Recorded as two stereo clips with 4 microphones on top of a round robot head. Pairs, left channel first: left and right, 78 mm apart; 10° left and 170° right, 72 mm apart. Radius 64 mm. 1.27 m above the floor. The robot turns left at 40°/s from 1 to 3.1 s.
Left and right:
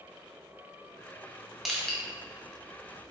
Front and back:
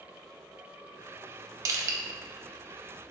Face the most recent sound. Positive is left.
turn(degrees=125)